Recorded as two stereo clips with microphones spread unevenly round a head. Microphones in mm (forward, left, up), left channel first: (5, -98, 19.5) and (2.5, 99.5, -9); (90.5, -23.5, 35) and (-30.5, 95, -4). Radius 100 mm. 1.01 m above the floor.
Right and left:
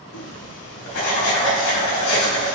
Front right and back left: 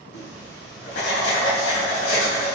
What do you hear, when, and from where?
0.1 s writing: 80° right, 3 m